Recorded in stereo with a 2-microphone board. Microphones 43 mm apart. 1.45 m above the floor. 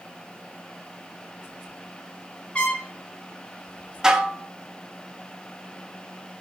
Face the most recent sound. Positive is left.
turn(degrees=-15)  # may be behind; listen again after turning